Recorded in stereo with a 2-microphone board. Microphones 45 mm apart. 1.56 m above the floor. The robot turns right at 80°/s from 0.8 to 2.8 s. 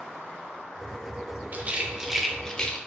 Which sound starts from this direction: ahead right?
A rattle, at 1.5 s.